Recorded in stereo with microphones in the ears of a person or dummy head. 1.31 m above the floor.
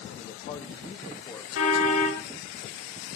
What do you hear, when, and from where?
0.1 s a man speaking: 40° left (ahead or behind), 2.5 m; by 1.4 s 10° left (ahead or behind), 2.5 m
1.6 s a car horn: 85° left, 7 m